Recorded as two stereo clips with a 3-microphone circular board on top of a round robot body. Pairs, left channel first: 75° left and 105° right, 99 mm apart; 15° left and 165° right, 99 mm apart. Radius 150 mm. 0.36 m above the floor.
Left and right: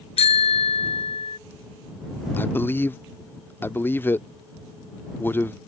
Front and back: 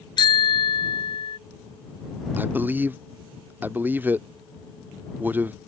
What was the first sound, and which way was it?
A bicycle bell, 60° left.